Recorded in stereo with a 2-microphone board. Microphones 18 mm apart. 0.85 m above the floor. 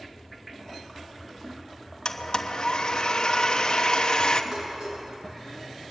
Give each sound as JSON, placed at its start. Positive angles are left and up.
{"t": 2.0, "sound": "a blender", "side_deg": 40, "distance_m": 1.2}
{"t": 4.5, "sound": "dishes clattering", "side_deg": -40, "distance_m": 6.5}